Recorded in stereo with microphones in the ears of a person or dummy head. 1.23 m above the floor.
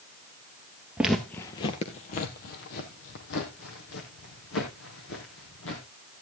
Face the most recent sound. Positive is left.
turn(degrees=75)  # may be behind; listen again after turning